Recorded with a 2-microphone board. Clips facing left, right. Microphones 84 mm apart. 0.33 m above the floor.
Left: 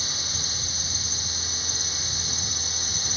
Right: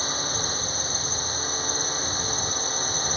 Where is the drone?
40° right (ahead or behind).